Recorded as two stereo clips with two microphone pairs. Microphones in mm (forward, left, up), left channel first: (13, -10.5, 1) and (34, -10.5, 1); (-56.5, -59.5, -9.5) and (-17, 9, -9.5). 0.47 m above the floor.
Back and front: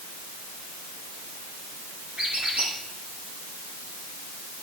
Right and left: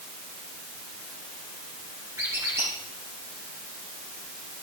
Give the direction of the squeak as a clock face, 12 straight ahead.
12 o'clock.